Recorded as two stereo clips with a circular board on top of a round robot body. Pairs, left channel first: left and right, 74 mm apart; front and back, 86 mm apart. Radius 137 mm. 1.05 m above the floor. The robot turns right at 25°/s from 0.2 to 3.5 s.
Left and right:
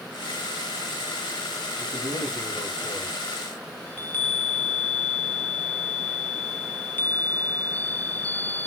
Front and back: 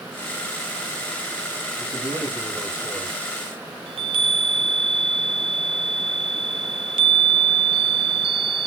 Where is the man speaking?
125° left, 5.5 m; by 3.2 s 160° left, 5.5 m.